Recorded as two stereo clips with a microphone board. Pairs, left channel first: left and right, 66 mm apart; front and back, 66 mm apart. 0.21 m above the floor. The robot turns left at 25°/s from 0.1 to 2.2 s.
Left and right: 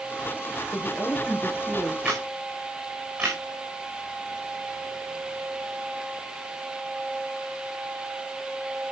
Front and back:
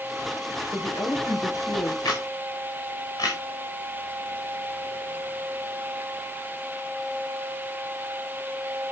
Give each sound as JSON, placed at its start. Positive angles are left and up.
{"t": 0.7, "sound": "a woman speaking", "azimuth_deg": 40, "distance_m": 3.0}
{"t": 2.0, "sound": "a camera shutter", "azimuth_deg": -15, "distance_m": 6.0}